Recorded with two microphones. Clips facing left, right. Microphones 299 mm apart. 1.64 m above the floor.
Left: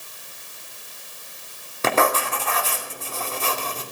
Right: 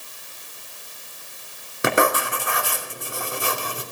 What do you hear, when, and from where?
1.8 s writing: 15° right (ahead or behind), 2.5 m